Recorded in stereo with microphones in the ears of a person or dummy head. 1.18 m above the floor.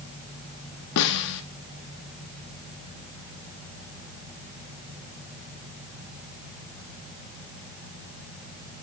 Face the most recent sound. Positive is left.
turn(degrees=70)  # may be behind; listen again after turning